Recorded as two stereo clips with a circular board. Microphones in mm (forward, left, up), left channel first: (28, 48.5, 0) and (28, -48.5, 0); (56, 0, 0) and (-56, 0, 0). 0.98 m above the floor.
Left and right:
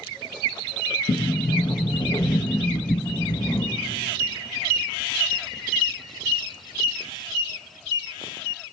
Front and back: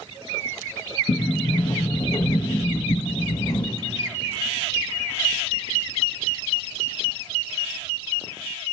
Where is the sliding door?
50° left, 0.9 m.